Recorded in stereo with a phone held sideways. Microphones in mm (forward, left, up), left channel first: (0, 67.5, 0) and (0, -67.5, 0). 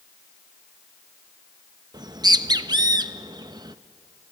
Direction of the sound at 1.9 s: 30° right (ahead or behind).